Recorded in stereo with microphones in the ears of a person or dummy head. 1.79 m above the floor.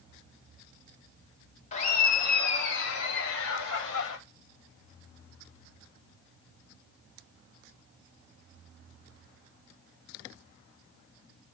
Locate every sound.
1.7 s laughter: 35° left (ahead or behind), 1.6 m; by 4.2 s 75° left (ahead or behind), 3.5 m